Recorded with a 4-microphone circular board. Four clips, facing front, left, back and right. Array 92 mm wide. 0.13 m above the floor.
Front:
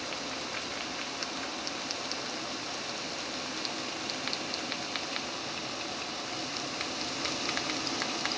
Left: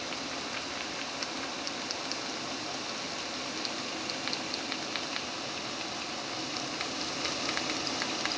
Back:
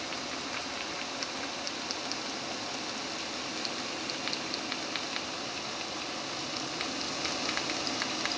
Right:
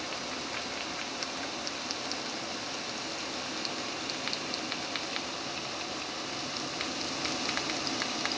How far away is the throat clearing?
I don't hear throat clearing.